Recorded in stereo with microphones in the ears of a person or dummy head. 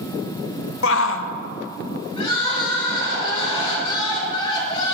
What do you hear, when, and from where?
0.8 s a shout: 75° left (ahead or behind), 1.1 m
2.2 s crying: 35° left (ahead or behind), 5 m